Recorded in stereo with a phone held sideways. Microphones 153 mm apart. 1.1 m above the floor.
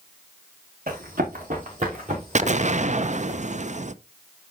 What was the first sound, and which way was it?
Running footsteps, 65° right (ahead or behind).